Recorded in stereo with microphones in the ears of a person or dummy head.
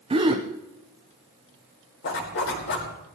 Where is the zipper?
65° left (ahead or behind), 4.5 m.